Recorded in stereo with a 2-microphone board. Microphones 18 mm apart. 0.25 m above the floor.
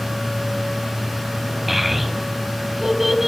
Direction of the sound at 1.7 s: 15° right (ahead or behind).